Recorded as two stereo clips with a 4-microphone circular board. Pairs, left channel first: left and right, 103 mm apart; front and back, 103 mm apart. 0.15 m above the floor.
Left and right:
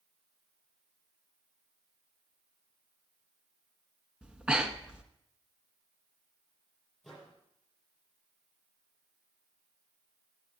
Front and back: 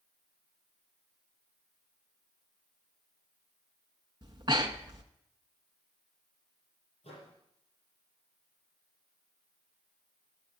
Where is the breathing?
165° right, 0.8 m.